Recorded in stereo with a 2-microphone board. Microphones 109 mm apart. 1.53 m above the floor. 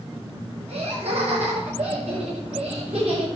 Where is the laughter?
70° right (ahead or behind), 7.5 m; by 3.2 s 85° right, 8 m.